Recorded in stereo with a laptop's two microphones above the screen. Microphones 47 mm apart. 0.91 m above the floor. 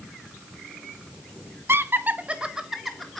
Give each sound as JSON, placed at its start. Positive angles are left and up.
{"t": 1.7, "sound": "laughter", "side_deg": -50, "distance_m": 0.7}